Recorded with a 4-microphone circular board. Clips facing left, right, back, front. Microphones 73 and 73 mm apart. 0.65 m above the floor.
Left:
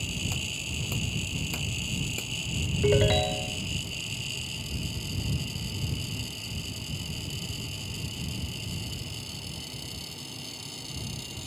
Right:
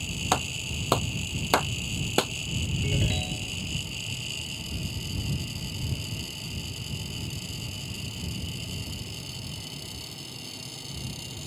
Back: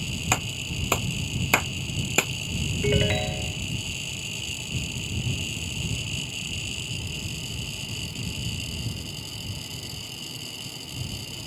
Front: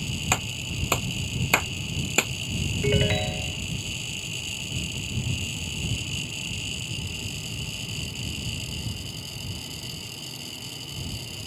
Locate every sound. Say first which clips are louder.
0.3 s a clap: right 8 dB, back 1 dB; 95° right
2.8 s a ringtone: left 11 dB, even; 90° left